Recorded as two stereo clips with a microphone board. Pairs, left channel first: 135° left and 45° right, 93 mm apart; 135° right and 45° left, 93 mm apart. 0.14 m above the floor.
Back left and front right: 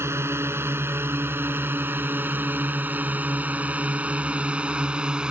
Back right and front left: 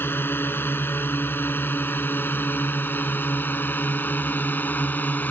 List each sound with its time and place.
0.0 s a drone: 85° right; by 5.3 s 105° right